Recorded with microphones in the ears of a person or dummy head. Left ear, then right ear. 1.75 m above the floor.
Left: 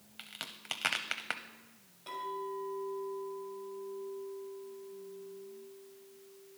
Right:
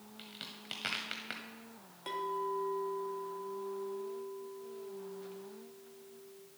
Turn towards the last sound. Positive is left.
turn(degrees=-40)  # may be behind; listen again after turning